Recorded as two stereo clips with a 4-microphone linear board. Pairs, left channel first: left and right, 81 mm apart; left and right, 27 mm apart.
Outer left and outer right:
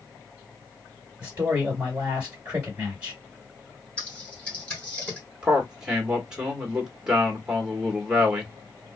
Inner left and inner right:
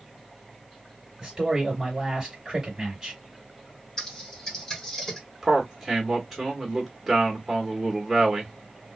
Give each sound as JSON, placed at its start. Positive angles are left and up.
{"t": 1.2, "sound": "a man speaking", "side_deg": -20, "distance_m": 1.8}
{"t": 4.0, "sound": "typing on a keyboard", "side_deg": 15, "distance_m": 1.3}
{"t": 5.4, "sound": "a man speaking", "side_deg": -10, "distance_m": 1.2}